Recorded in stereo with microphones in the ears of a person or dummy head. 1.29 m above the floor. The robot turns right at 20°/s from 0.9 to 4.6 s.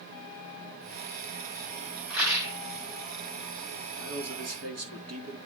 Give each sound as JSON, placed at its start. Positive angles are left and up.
{"t": 2.1, "sound": "a rattle", "side_deg": -5, "distance_m": 3.5}
{"t": 4.0, "sound": "a man speaking", "side_deg": -60, "distance_m": 3.0}